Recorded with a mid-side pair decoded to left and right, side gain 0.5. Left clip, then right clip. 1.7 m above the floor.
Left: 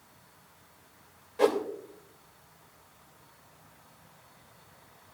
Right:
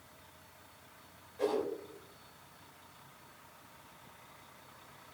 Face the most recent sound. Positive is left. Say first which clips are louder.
# left 8 dB
turn(degrees=60)